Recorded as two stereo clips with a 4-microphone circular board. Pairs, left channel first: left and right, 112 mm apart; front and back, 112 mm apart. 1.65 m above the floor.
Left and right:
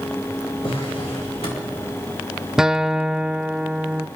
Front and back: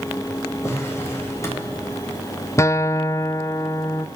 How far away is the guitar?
About 0.5 m.